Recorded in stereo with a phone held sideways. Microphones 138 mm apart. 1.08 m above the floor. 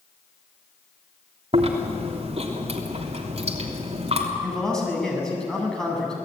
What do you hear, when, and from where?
1.5 s chewing: 50° right (ahead or behind), 3 m
4.4 s a man speaking: 5° left (ahead or behind), 7.5 m